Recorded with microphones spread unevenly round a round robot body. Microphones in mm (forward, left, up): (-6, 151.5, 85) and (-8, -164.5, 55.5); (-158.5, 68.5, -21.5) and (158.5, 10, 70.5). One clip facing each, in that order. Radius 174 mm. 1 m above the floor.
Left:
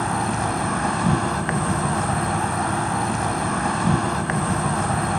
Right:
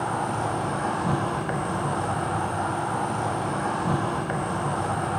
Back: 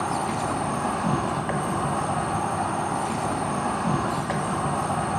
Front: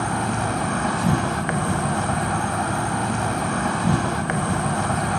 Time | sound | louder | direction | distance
0.0 | an insect | left 4 dB, front 3 dB | 45° left | 0.8 m